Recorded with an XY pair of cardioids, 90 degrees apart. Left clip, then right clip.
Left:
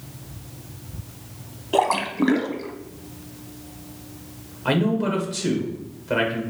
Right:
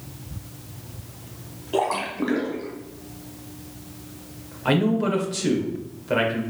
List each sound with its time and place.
1.7 s a splash: 45° left, 0.8 m
4.7 s a man speaking: 5° right, 1.6 m